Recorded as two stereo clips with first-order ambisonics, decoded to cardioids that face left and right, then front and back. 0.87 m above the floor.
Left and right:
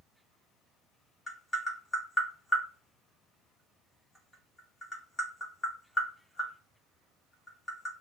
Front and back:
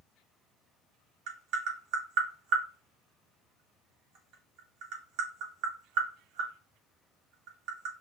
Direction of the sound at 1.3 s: 170° left.